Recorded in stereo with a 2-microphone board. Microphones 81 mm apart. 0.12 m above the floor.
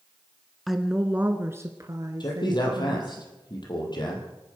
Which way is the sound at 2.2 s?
55° left (ahead or behind).